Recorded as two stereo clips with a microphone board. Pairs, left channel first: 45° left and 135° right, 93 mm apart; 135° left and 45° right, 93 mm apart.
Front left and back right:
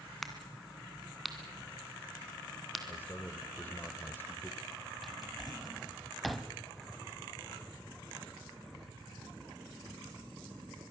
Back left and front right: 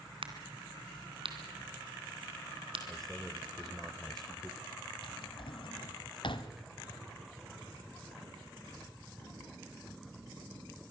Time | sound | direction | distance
0.2 | a crack | 45° right | 2.5 m
2.9 | a man speaking | 55° left | 1.5 m
5.0 | a drawer | 135° left | 1.1 m